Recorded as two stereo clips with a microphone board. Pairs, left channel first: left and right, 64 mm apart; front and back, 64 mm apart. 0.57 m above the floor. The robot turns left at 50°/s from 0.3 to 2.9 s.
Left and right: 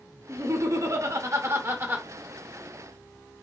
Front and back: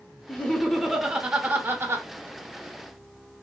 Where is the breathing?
I don't hear breathing.